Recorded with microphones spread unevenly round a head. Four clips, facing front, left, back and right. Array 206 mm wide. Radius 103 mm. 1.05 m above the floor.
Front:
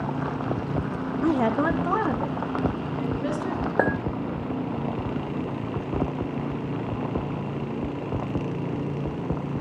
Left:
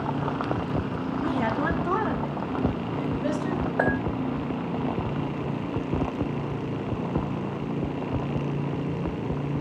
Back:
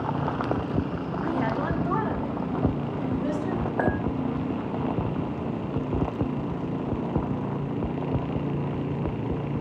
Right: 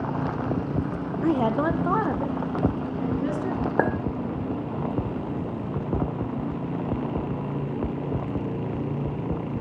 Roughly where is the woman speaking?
Ahead right.